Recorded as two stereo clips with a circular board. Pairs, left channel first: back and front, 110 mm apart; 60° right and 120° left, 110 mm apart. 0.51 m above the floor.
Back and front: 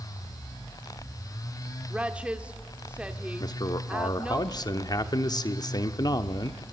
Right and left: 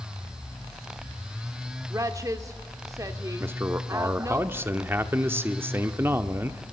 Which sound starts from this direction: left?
A woman speaking, at 1.9 s.